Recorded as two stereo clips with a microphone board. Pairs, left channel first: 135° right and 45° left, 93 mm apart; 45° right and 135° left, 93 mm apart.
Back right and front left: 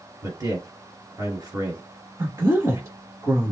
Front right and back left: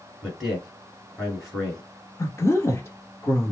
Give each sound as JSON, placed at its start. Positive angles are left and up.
{"t": 0.2, "sound": "a man speaking", "azimuth_deg": 50, "distance_m": 1.9}
{"t": 2.2, "sound": "a woman speaking", "azimuth_deg": 5, "distance_m": 2.0}